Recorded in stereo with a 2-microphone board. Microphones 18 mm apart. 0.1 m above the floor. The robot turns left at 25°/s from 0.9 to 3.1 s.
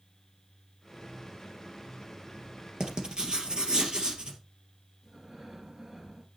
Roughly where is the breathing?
Right.